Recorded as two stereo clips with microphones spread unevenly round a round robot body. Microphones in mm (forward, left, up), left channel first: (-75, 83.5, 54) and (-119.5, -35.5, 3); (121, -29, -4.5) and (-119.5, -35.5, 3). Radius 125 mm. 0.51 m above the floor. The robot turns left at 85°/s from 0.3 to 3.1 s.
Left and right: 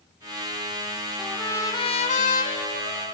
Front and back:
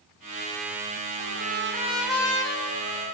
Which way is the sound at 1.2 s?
170° left.